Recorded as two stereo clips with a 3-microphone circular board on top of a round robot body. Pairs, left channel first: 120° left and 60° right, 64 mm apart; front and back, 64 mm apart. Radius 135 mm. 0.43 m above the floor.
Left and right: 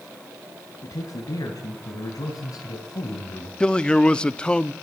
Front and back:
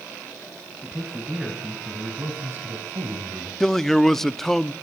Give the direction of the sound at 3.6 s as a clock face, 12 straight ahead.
9 o'clock.